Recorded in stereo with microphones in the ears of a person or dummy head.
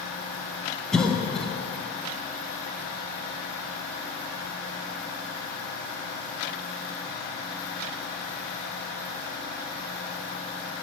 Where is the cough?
5° left (ahead or behind), 0.6 m.